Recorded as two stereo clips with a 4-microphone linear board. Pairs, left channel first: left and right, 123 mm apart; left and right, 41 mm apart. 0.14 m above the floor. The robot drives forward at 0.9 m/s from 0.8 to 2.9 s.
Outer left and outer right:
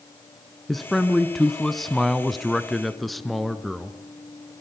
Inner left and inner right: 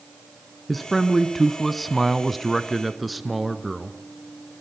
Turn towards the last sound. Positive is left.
turn(degrees=0)  # may be behind; listen again after turning